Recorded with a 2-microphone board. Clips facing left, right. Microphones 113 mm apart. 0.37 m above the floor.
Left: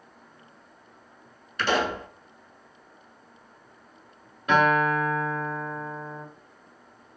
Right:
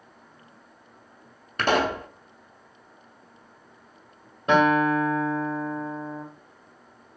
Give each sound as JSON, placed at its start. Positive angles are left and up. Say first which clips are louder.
{"t": 1.6, "sound": "a pop", "louder": "right 2 dB", "side_deg": -50, "distance_m": 0.6}
{"t": 4.5, "sound": "a guitar", "louder": "right 2 dB", "side_deg": -30, "distance_m": 1.2}